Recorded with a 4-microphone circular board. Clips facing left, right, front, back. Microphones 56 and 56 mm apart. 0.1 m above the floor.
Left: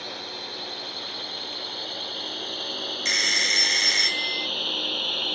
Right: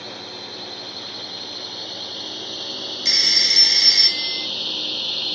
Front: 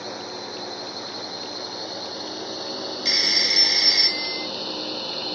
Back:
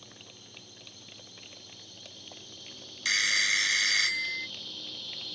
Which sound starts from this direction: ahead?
A drone, at 0.0 s.